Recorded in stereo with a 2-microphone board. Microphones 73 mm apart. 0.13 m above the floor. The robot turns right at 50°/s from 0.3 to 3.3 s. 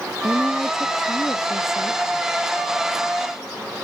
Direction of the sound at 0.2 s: 25° right.